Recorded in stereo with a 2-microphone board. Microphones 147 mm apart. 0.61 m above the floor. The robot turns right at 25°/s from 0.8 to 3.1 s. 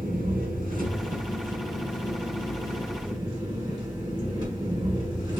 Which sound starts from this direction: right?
An engine running, at 0.0 s.